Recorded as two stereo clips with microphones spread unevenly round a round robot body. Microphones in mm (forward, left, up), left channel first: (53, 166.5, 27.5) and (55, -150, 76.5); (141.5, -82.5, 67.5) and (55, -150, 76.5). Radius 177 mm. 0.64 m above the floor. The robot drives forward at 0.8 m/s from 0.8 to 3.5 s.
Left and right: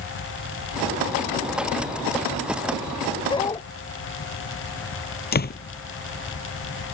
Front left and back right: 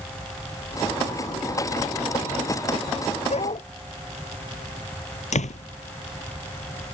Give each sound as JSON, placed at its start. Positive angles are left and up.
{"t": 3.3, "sound": "a dog barking", "azimuth_deg": 15}
{"t": 5.3, "sound": "a door slam", "azimuth_deg": 25}